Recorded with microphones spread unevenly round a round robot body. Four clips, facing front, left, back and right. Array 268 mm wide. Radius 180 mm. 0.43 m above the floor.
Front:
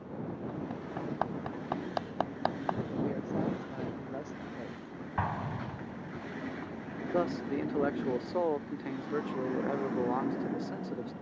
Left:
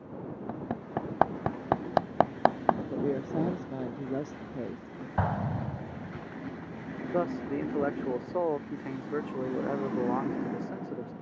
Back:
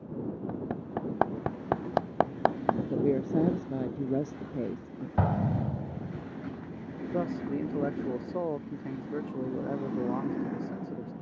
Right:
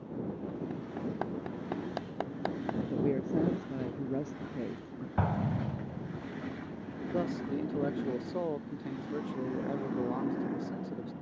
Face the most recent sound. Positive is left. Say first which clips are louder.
# left 3 dB, even
turn(degrees=50)